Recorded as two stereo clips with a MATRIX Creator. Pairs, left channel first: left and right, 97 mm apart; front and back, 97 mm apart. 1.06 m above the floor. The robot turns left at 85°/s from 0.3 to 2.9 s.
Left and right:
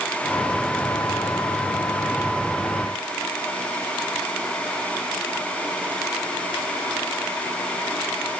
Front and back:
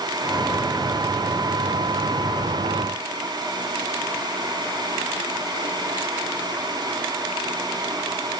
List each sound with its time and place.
Only background noise.